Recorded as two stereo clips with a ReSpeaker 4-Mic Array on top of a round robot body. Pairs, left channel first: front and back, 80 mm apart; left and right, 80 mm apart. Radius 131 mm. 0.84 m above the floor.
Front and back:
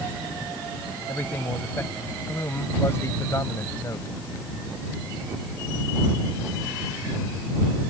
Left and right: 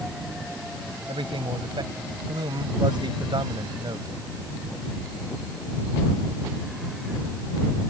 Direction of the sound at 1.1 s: 70° right.